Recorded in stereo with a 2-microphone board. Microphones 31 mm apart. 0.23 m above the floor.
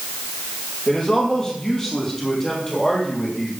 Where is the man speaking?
25° left (ahead or behind), 5.5 m; by 3.5 s 10° left (ahead or behind), 7 m.